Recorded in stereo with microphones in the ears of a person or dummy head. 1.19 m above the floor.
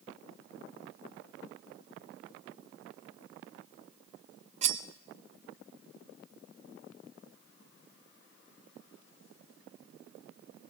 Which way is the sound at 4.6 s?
35° right (ahead or behind).